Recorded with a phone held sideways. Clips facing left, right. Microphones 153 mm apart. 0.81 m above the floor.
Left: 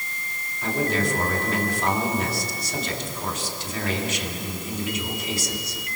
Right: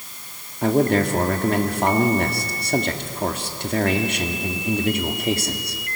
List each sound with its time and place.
0.6 s a man speaking: 60° right (ahead or behind), 2.0 m